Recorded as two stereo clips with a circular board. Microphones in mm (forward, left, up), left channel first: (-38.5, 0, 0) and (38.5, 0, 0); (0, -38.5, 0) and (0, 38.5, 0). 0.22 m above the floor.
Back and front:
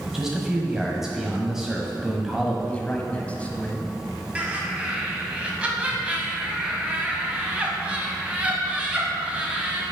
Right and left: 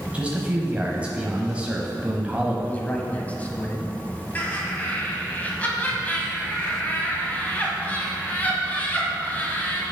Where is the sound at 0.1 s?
70° left, 0.9 m.